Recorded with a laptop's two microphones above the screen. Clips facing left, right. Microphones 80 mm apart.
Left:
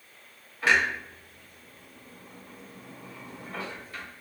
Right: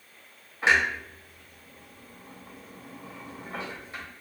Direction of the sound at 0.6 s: 20° right (ahead or behind).